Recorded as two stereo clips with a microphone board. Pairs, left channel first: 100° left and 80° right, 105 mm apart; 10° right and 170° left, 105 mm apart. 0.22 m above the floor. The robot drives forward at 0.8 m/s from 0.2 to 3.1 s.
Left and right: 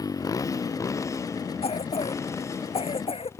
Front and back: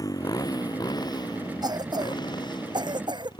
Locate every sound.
0.0 s a motorcycle: 45° left; by 3.4 s 35° left
1.6 s a cough: 120° left; by 3.3 s 125° left